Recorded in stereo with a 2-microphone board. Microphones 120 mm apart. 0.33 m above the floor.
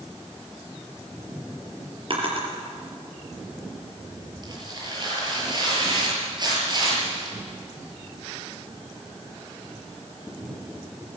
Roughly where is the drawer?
Right.